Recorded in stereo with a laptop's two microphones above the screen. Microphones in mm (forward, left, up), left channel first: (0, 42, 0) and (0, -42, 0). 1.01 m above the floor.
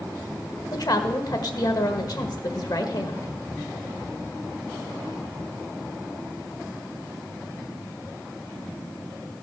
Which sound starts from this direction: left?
A woman speaking, at 0.7 s.